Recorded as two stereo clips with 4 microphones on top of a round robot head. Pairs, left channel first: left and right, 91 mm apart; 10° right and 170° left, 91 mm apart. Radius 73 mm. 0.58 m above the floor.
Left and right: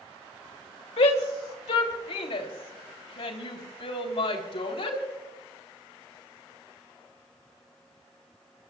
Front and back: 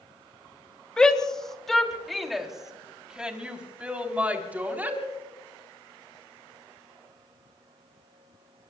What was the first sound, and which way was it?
A shout, 75° left.